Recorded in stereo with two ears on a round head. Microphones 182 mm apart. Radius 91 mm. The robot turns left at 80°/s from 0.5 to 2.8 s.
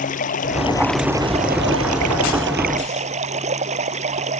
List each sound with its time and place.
0.0 s running water: 35° left; by 4.4 s 145° right